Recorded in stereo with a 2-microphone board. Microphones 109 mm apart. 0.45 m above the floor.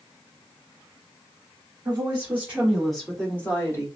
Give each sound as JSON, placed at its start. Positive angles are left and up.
{"t": 1.9, "sound": "a woman speaking", "side_deg": -30, "distance_m": 1.5}